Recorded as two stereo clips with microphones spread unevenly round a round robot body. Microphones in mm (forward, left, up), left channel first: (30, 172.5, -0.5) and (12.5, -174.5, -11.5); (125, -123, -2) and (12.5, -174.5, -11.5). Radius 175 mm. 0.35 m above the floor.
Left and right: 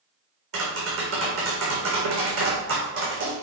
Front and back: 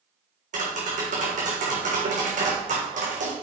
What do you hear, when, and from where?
0.5 s tapping: 150° right, 3.5 m